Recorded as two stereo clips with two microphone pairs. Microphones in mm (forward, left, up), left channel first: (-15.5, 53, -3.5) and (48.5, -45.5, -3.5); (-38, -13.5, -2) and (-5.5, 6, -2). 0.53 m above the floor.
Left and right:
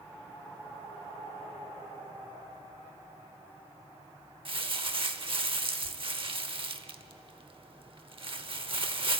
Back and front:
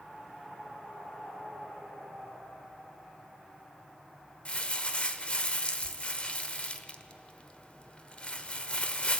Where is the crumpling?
95° right, 0.8 m.